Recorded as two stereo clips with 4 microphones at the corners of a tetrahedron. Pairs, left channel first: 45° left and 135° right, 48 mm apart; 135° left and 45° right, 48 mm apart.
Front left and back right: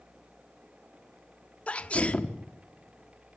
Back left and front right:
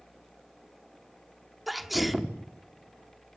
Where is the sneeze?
45° left, 1.2 m.